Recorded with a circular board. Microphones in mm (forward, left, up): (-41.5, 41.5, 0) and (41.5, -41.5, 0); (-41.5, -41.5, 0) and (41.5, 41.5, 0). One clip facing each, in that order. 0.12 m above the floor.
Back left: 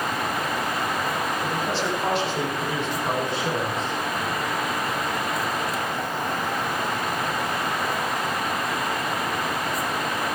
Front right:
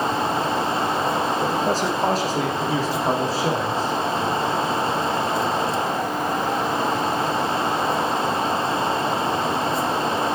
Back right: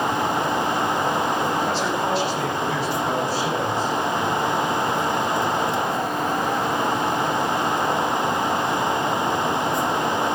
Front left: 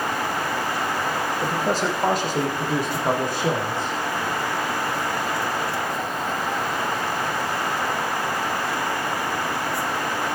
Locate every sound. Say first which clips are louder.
1.4 s a man speaking: front right 4 dB, even; straight ahead, 4 m; by 3.9 s 10° left, 5 m